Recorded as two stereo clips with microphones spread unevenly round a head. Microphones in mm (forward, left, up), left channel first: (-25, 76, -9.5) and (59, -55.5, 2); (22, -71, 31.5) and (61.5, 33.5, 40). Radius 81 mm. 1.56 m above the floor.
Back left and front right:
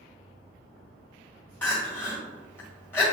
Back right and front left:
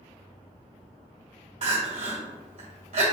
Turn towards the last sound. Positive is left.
turn(degrees=45)